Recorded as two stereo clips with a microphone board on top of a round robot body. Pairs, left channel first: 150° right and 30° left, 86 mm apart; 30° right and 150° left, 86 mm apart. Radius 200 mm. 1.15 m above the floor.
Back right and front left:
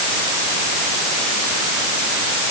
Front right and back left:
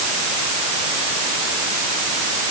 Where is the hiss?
No hiss in this recording.